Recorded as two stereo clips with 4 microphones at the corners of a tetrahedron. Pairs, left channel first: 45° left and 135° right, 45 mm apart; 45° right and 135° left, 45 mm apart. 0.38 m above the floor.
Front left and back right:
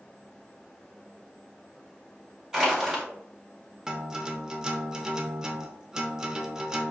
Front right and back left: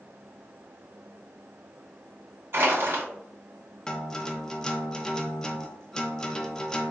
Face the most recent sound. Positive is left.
turn(degrees=-80)